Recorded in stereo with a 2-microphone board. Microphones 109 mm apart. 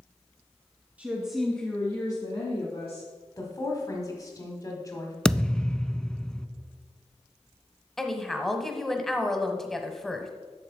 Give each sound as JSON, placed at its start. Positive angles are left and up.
{"t": 1.0, "sound": "a woman speaking", "side_deg": -15, "distance_m": 1.9}
{"t": 3.4, "sound": "a woman speaking", "side_deg": 30, "distance_m": 1.4}
{"t": 5.2, "sound": "a thud", "side_deg": 10, "distance_m": 0.6}
{"t": 8.0, "sound": "a woman speaking", "side_deg": 0, "distance_m": 1.0}